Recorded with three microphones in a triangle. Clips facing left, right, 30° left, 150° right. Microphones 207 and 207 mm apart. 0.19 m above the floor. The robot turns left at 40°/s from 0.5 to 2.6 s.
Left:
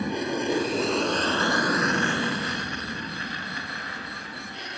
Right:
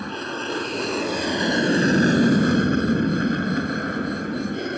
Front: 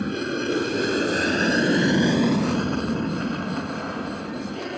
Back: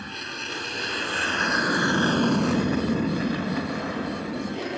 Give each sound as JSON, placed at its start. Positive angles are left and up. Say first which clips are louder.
{"t": 0.0, "sound": "an aircraft", "louder": "left 3 dB, front 14 dB", "azimuth_deg": 15}